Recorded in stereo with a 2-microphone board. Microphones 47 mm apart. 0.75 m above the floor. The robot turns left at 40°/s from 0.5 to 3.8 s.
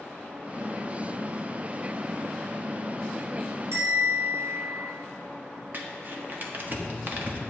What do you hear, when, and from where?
3.7 s a bell: 75° right (ahead or behind), 5 m
5.7 s crumpling: 45° right (ahead or behind), 1.4 m